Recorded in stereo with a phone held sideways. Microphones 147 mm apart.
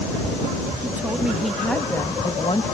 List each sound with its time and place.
0.8 s a woman speaking: 15° right (ahead or behind); by 2.6 s 45° left (ahead or behind)